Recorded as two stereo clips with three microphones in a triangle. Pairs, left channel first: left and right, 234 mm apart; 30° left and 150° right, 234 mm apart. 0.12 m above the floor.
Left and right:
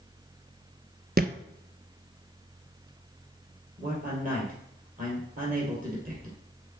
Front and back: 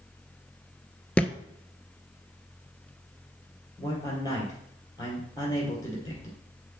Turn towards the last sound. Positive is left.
turn(degrees=-45)